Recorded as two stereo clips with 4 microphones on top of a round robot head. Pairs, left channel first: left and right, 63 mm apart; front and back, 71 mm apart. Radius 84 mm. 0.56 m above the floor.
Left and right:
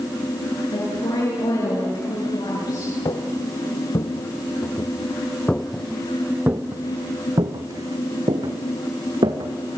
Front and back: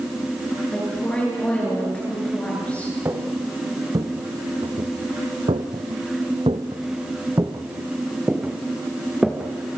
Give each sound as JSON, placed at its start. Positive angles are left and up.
{"t": 0.7, "sound": "a woman speaking", "azimuth_deg": 75, "distance_m": 8.5}
{"t": 3.0, "sound": "footsteps", "azimuth_deg": 120, "distance_m": 2.5}